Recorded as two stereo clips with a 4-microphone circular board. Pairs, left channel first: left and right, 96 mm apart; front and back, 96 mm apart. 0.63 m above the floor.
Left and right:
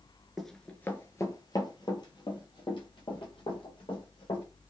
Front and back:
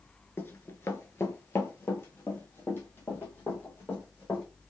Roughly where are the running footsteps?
Ahead.